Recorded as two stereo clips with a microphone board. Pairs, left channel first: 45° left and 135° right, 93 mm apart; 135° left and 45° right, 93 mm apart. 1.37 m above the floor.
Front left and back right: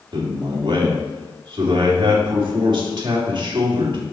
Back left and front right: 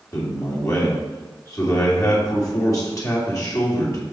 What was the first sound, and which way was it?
A man speaking, 170° right.